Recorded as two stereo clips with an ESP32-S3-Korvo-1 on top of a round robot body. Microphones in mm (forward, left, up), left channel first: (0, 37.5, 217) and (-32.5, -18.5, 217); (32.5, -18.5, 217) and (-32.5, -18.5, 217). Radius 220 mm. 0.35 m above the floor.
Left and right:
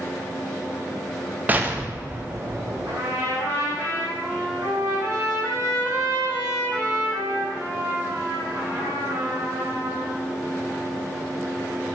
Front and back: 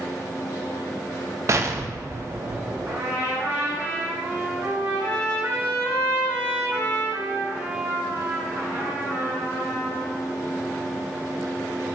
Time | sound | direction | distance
1.5 | an explosion | 175° right | 0.5 m
2.9 | a trumpet | 135° right | 1.9 m